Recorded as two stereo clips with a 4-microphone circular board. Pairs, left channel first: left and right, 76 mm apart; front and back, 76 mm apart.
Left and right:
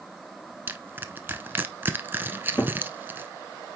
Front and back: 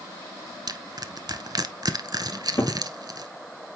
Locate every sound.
0.7 s crushing: 150° right, 0.7 m
2.3 s a cupboard door: 40° left, 2 m